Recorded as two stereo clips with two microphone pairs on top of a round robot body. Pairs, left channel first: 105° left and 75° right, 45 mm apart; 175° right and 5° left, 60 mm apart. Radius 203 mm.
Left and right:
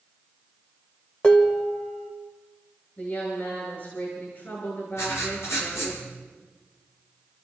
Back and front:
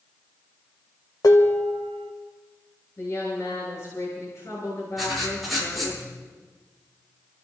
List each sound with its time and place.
1.2 s dishes clattering: 170° left, 1.9 m
3.0 s a woman speaking: 150° left, 7 m
5.0 s writing: 95° left, 9.5 m